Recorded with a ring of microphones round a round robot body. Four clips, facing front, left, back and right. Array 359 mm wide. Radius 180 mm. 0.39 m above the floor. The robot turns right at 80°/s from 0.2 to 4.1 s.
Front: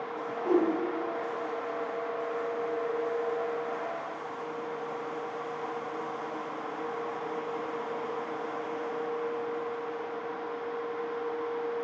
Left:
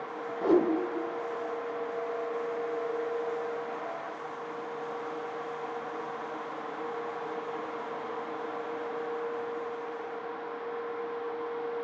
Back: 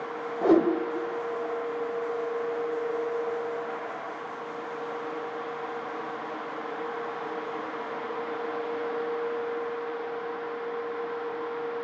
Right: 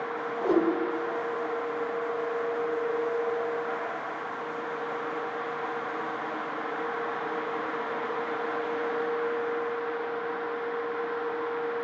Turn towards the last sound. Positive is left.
turn(degrees=105)